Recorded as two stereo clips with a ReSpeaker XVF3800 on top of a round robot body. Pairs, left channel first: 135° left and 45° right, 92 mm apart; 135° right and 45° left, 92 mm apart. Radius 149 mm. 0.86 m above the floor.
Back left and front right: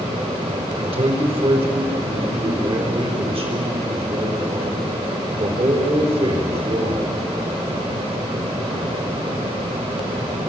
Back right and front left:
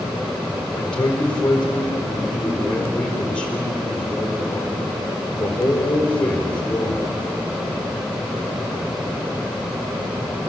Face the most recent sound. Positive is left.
turn(degrees=-55)